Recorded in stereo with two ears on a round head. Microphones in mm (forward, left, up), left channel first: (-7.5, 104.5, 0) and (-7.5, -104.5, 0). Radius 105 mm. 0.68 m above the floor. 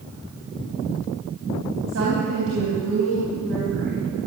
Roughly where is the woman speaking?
Right.